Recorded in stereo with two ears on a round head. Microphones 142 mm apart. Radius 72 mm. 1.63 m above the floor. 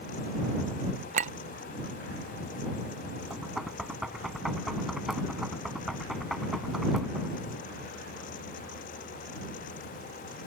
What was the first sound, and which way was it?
A clink, 45° right (ahead or behind).